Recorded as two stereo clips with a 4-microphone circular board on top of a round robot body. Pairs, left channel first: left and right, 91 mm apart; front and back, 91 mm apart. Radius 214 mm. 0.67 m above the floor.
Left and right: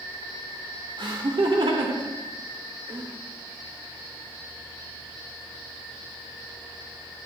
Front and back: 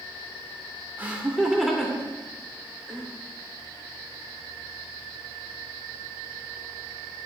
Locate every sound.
1.0 s laughter: 110° right, 2 m; by 3.1 s 65° right, 3 m